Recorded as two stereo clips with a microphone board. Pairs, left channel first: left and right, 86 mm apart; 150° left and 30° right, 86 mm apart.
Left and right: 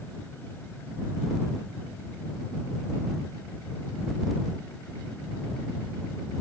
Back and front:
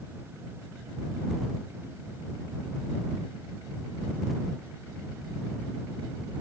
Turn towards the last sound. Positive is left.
No sound to turn to.